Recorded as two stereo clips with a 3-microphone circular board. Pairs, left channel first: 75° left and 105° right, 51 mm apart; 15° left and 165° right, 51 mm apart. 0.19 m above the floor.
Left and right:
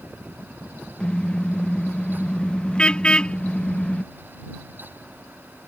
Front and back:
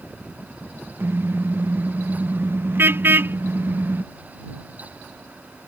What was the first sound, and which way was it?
A car horn, 150° left.